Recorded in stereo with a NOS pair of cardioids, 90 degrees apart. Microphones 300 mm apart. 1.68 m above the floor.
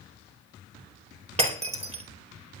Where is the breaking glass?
20° right, 4 m.